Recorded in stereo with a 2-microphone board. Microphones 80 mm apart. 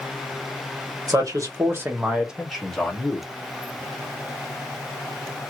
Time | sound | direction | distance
1.1 | a man speaking | 50° right (ahead or behind) | 1.2 m